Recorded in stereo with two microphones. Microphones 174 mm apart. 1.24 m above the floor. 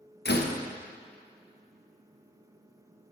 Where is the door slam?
75° left (ahead or behind), 0.8 m.